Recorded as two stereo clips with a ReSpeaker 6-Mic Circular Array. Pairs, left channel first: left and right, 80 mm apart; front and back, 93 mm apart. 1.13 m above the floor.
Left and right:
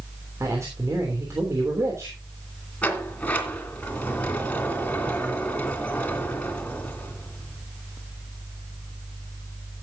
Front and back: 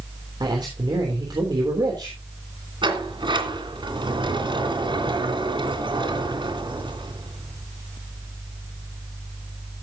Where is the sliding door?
160° left, 2.5 m.